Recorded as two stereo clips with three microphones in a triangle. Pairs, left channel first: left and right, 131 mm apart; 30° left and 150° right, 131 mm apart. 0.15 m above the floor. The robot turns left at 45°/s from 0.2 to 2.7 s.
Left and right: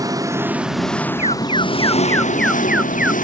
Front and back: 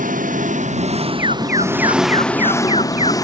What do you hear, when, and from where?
0.0 s an engine running: 155° right; by 3.2 s 95° left
1.2 s an alarm: 60° left; by 3.1 s 10° right